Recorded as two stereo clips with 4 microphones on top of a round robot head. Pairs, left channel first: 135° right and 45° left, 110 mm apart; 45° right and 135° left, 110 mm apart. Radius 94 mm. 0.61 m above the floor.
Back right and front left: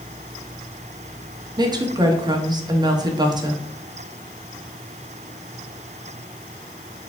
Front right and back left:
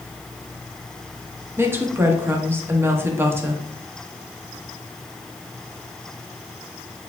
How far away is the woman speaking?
About 1.0 m.